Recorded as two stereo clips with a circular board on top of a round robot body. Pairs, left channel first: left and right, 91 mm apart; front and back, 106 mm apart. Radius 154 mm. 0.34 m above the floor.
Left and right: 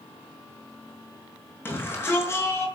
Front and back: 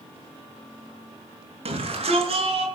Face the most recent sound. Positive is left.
turn(degrees=155)